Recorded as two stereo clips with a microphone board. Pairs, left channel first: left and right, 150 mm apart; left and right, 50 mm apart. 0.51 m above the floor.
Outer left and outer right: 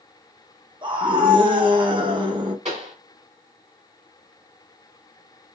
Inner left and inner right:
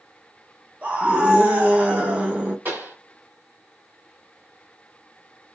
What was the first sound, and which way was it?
A scream, 35° right (ahead or behind).